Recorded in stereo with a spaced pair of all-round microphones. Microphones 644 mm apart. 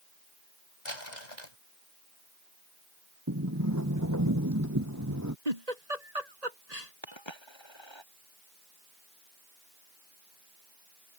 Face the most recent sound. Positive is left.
turn(degrees=40)  # may be behind; listen again after turning